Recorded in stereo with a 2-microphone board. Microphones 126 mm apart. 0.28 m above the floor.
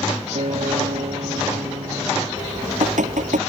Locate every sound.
0.3 s a guitar: 65° right (ahead or behind)
2.4 s dripping: 75° right (ahead or behind)